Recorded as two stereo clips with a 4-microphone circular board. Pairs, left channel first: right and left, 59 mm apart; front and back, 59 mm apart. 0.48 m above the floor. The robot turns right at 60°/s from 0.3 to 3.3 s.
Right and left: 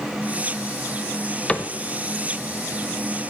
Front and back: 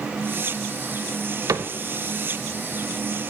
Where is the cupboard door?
160° right, 0.5 m; by 1.7 s 150° right, 0.5 m.